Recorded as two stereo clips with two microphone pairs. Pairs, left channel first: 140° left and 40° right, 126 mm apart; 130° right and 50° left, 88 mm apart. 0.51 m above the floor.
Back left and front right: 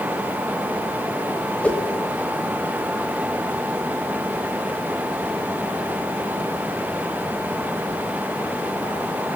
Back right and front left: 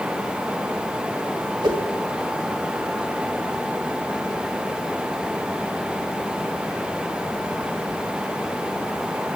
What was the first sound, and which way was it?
A whoosh, 60° left.